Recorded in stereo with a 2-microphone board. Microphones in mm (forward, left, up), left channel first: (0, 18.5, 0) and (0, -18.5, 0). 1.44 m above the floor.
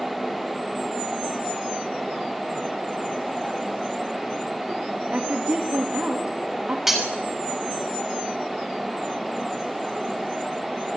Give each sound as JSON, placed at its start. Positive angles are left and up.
{"t": 5.1, "sound": "a woman speaking", "side_deg": -35, "distance_m": 2.5}
{"t": 6.9, "sound": "breaking glass", "side_deg": -5, "distance_m": 6.0}